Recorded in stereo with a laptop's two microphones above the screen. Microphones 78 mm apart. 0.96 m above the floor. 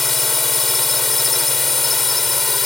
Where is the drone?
Centre (ahead or behind).